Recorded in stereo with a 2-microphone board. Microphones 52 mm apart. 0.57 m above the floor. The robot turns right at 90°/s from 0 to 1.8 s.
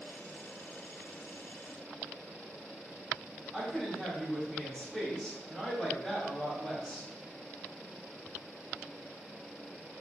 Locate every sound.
3.5 s a woman speaking: centre (ahead or behind), 1.6 m